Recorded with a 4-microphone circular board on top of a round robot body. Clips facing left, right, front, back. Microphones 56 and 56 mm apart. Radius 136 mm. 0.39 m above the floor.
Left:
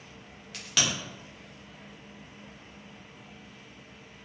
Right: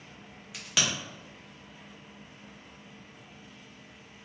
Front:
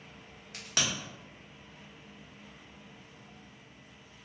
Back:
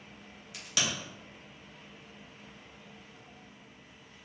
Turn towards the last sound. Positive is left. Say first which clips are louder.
# even, even
turn(degrees=-15)